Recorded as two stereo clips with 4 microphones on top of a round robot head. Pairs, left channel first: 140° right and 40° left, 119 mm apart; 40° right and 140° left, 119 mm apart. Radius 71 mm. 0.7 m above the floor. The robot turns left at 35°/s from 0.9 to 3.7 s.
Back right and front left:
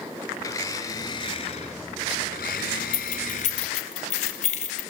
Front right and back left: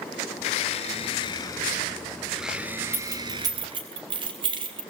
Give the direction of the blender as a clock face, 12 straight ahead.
3 o'clock.